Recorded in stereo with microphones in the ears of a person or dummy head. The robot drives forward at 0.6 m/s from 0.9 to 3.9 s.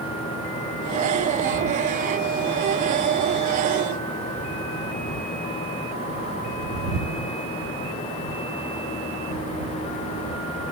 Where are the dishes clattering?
I don't hear dishes clattering.